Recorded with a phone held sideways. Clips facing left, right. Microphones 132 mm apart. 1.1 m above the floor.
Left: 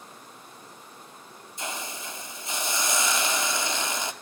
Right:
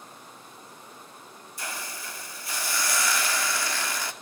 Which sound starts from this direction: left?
A hiss, at 1.6 s.